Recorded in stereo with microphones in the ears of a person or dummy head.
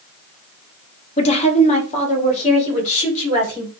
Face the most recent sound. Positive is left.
turn(degrees=35)  # may be behind; listen again after turning